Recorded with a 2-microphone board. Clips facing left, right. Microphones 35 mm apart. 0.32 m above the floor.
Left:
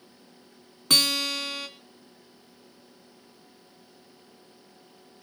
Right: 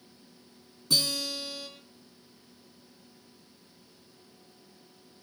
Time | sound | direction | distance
0.9 | a guitar | 65° left (ahead or behind) | 1.5 m